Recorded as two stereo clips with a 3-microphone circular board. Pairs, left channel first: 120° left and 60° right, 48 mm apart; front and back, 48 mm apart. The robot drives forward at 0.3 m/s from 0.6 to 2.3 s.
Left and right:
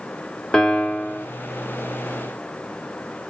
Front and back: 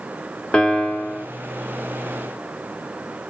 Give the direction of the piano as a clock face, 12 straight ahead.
10 o'clock.